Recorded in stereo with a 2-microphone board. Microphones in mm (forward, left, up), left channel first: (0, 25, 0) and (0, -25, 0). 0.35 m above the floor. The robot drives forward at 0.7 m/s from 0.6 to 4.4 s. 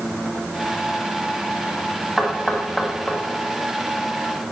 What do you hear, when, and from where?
2.2 s knocking: 5° left (ahead or behind), 1.8 m; by 3.2 s 10° left (ahead or behind), 1.2 m